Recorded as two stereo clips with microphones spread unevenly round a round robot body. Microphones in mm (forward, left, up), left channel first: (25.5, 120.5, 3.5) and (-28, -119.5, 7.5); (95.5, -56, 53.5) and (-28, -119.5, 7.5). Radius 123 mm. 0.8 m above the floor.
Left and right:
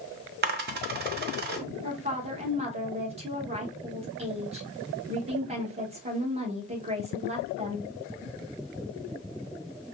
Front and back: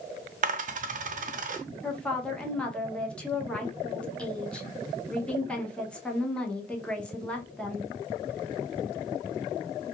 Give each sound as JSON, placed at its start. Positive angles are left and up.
{"t": 0.4, "sound": "a dropped coin", "azimuth_deg": -125, "distance_m": 0.5}
{"t": 1.8, "sound": "a woman speaking", "azimuth_deg": -90, "distance_m": 0.9}